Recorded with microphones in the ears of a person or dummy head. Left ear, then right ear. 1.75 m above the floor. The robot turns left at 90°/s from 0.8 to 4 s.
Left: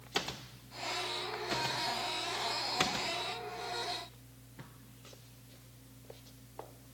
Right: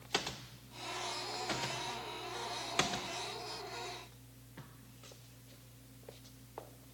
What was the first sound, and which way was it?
Only background noise.